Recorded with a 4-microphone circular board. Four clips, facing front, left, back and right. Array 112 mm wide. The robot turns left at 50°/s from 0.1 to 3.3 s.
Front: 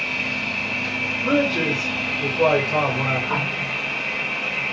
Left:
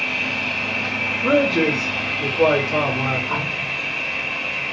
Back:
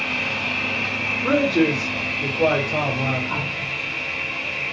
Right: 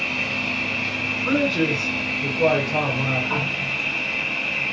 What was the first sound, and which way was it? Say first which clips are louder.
An insect: left 1 dB, back 1 dB; 150° left.